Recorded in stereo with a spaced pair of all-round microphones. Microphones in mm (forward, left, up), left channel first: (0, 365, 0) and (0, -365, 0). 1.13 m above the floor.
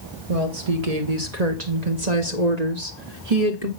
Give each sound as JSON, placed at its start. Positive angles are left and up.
{"t": 0.3, "sound": "a woman speaking", "side_deg": -50, "distance_m": 2.0}